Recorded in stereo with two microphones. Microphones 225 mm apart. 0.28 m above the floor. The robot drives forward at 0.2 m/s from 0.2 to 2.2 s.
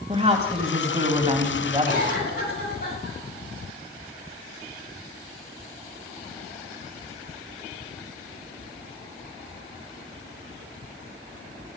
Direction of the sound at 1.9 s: 80° left.